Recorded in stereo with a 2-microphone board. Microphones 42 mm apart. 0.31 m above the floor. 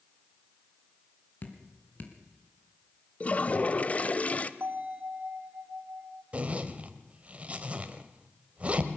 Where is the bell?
65° right (ahead or behind), 2.5 m.